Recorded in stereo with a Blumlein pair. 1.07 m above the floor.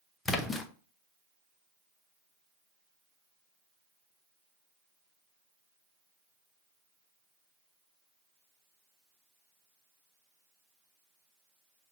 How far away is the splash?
About 0.7 m.